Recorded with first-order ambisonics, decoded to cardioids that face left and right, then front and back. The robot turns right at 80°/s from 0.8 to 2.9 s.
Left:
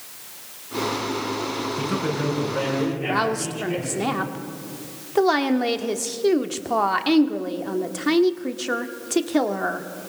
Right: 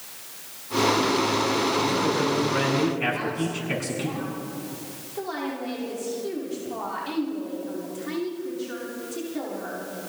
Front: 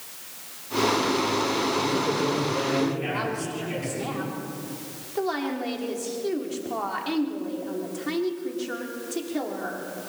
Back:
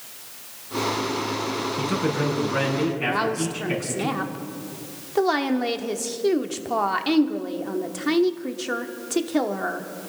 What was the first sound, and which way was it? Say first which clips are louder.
A man speaking: right 2 dB, even; 140° left.